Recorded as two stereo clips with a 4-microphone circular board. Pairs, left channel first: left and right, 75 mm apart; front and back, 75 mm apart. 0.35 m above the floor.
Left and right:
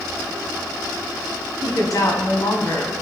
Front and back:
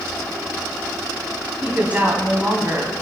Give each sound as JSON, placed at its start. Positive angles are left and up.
{"t": 1.6, "sound": "a woman speaking", "azimuth_deg": 110, "distance_m": 2.5}